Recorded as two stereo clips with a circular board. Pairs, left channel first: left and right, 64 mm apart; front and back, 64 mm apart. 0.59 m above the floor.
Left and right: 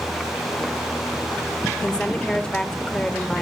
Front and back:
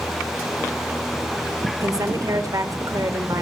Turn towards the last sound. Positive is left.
turn(degrees=165)